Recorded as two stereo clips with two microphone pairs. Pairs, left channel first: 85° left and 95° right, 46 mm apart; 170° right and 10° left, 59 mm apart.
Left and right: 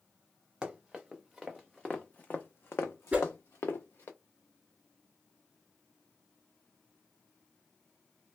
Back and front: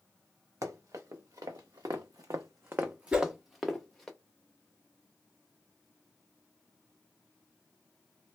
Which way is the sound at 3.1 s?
50° right.